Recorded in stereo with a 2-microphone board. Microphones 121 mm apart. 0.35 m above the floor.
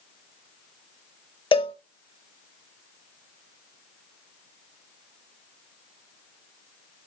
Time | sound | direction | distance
1.5 | a cowbell | 45° left (ahead or behind) | 0.7 m